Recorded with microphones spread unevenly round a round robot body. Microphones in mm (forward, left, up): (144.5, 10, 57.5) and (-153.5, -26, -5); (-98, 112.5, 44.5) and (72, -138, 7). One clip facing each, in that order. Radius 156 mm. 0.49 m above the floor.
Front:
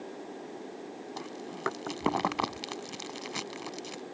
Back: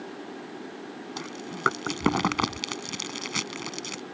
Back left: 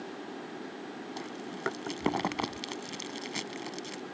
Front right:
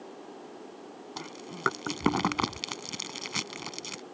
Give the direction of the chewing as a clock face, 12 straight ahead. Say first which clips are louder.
Back 3 dB, back left 2 dB; 4 o'clock.